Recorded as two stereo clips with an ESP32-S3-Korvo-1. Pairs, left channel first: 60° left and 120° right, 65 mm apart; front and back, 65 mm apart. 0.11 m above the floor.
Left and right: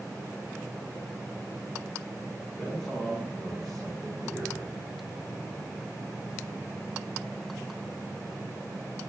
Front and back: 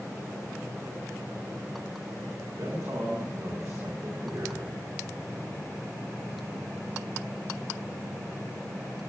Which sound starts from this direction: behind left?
A man speaking, at 2.6 s.